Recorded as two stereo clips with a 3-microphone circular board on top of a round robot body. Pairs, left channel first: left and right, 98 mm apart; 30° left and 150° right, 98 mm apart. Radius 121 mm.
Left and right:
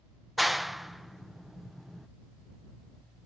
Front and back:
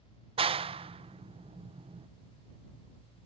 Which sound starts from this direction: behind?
A clap, at 0.4 s.